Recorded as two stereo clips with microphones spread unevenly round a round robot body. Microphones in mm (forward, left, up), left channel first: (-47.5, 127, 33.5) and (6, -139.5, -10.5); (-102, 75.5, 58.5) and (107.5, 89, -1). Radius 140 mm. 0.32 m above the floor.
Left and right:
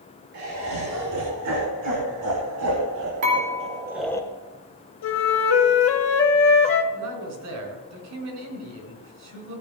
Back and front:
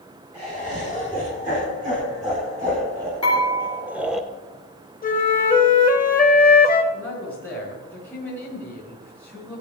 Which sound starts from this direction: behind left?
A flute, at 5.0 s.